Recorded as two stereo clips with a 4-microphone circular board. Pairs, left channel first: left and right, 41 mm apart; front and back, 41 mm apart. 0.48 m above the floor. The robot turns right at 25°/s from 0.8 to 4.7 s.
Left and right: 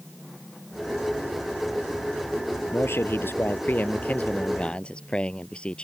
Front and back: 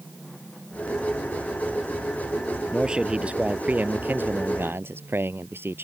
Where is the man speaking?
105° left; by 5.8 s 155° left.